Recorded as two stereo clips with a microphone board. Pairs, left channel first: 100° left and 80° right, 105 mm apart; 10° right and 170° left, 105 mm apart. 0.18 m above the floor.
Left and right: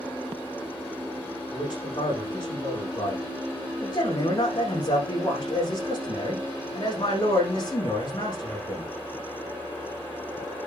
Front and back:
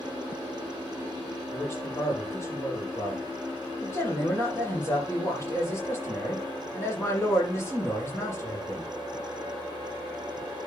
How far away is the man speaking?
About 9.5 m.